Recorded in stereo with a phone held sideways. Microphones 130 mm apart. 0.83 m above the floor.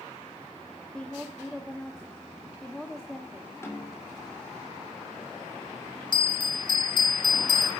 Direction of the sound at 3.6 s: 20° left (ahead or behind).